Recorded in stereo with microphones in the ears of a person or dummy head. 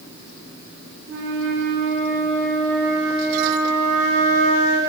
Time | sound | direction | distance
1.1 | a flute | 65° right (ahead or behind) | 1.1 m